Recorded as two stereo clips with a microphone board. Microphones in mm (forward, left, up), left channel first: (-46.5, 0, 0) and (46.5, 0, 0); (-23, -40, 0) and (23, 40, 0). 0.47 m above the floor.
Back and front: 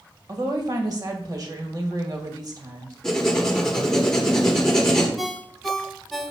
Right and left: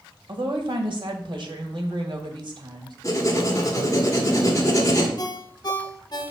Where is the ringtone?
90° right, 0.9 m.